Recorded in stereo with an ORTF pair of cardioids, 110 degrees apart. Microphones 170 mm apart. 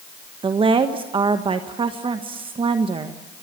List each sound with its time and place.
0.4 s a woman speaking: 30° right, 1.4 m